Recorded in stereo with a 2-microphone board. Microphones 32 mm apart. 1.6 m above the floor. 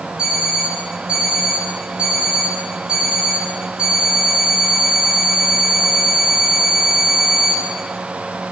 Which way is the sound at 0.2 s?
20° right (ahead or behind).